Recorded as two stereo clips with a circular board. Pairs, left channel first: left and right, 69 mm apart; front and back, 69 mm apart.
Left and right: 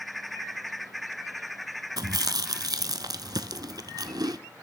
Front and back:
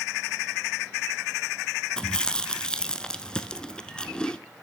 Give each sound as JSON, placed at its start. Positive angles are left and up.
{"t": 2.0, "sound": "chewing", "azimuth_deg": -80, "distance_m": 0.6}